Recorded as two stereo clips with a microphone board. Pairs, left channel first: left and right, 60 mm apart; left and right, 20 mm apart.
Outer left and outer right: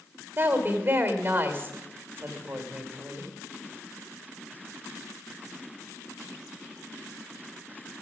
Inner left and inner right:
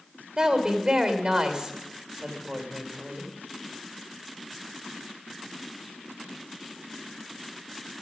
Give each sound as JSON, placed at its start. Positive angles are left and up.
{"t": 0.4, "sound": "a woman speaking", "side_deg": -40, "distance_m": 2.5}